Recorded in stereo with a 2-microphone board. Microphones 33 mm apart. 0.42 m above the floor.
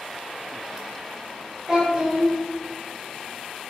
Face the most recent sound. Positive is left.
turn(degrees=-20)  # may be behind; listen again after turning